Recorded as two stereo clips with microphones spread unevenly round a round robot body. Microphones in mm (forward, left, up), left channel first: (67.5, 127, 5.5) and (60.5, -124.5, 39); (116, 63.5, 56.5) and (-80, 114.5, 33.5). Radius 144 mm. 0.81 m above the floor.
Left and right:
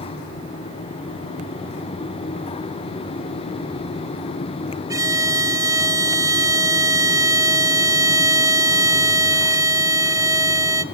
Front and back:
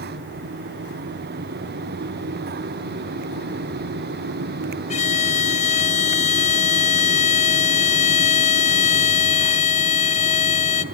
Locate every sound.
4.9 s a violin: 15° right, 0.7 m